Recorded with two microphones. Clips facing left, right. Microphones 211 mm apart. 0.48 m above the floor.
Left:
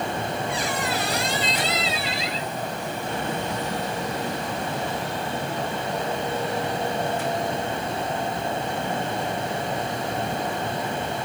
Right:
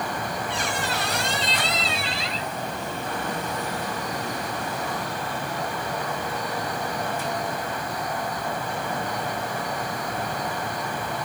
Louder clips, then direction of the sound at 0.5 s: Left 2 dB; 70° right (ahead or behind).